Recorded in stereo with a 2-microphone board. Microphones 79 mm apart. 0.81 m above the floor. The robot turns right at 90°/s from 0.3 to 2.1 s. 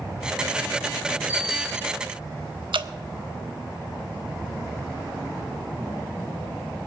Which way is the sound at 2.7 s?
75° right (ahead or behind).